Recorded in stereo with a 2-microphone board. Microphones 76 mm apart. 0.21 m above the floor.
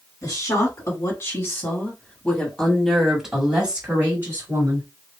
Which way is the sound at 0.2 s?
50° left (ahead or behind).